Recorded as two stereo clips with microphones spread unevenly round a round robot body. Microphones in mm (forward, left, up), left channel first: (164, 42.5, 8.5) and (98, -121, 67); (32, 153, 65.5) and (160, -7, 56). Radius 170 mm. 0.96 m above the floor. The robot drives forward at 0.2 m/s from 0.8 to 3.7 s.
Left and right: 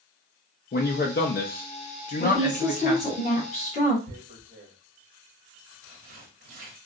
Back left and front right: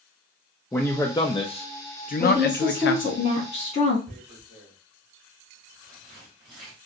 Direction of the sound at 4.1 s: 130° right.